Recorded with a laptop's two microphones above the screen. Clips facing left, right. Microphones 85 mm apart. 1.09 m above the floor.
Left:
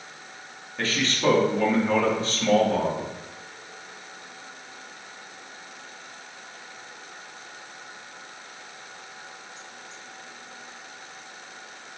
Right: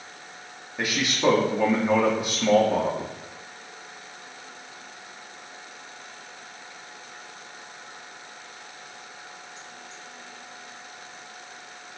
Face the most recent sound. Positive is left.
turn(degrees=-15)  # may be behind; listen again after turning